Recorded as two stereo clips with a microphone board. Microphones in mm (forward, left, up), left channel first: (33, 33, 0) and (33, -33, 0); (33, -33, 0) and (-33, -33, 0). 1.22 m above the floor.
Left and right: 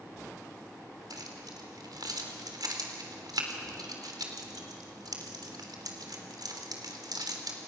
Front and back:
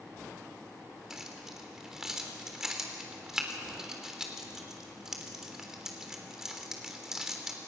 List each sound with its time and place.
1.1 s keys jangling: 95° right, 3 m